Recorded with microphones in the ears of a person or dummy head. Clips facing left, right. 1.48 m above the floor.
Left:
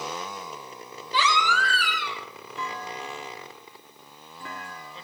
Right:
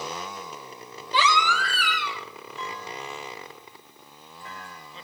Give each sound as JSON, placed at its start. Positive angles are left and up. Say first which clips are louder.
{"t": 1.1, "sound": "a baby crying", "louder": "right 1 dB", "side_deg": -55, "distance_m": 2.5}
{"t": 2.6, "sound": "a clunk", "louder": "left 2 dB", "side_deg": 45, "distance_m": 1.3}